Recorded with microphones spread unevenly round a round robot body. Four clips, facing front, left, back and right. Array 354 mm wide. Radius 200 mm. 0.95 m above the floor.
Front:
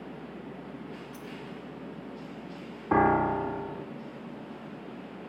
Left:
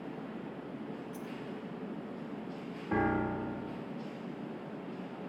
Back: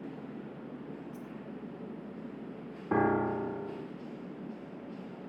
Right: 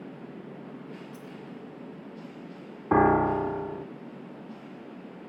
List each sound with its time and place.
1.1 s a dropped coin: 15° right, 3.5 m
2.9 s a piano: 45° right, 0.7 m